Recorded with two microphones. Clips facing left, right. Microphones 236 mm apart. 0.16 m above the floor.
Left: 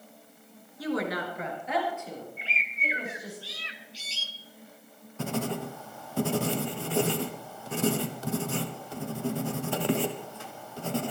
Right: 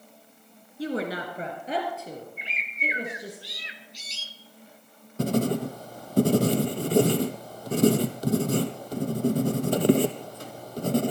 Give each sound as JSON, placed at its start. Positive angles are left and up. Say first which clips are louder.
{"t": 0.8, "sound": "a woman speaking", "louder": "right 1 dB", "side_deg": -25, "distance_m": 2.5}
{"t": 2.4, "sound": "a bird", "louder": "right 3 dB", "side_deg": -20, "distance_m": 1.0}
{"t": 5.2, "sound": "writing", "louder": "right 7 dB", "side_deg": -40, "distance_m": 0.9}